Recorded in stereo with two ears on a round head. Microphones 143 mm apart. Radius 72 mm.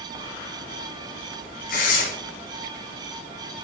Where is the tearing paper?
60° left (ahead or behind), 2 m.